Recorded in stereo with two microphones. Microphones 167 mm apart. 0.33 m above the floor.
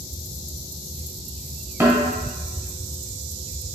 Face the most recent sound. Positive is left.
turn(degrees=-15)  # may be behind; listen again after turning